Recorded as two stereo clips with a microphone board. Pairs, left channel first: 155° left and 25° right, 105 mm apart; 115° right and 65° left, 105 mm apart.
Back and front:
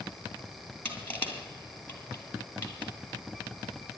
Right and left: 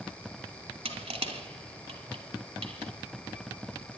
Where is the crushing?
85° left, 3 m.